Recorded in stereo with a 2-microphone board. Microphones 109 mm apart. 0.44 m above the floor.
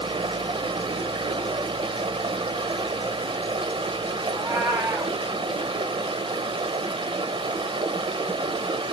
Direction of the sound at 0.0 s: 55° right (ahead or behind).